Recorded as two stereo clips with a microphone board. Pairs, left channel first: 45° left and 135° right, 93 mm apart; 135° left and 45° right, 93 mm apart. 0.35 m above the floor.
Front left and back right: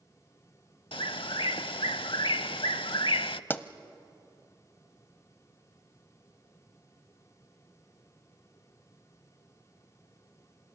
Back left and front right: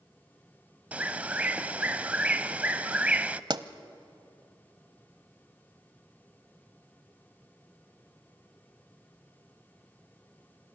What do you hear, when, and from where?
0.9 s a bird: 30° left, 0.5 m
3.5 s a pop: 20° right, 0.8 m